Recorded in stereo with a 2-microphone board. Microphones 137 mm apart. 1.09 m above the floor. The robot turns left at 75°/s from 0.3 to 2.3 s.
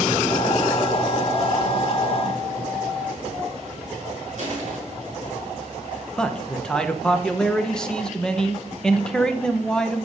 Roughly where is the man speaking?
Centre.